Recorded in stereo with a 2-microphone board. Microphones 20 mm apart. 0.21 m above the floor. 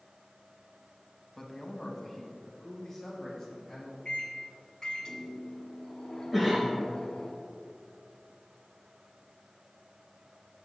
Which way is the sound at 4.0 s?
35° left (ahead or behind).